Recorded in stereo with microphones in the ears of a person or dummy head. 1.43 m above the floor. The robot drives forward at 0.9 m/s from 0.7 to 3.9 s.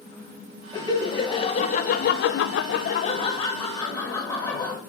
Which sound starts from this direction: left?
Laughter, at 0.7 s.